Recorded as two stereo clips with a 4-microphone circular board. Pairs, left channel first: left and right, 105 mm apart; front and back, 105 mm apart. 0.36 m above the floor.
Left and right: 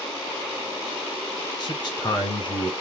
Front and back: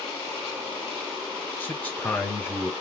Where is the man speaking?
70° left, 1.3 m.